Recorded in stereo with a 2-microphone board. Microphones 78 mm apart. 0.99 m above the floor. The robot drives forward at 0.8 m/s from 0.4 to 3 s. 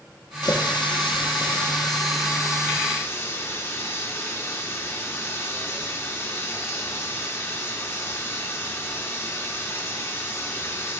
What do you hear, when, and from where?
0.4 s a running tap: 60° left (ahead or behind), 1.1 m; by 11.0 s 35° left (ahead or behind), 1.8 m